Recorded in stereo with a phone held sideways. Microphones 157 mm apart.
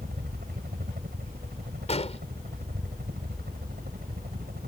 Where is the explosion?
45° left (ahead or behind).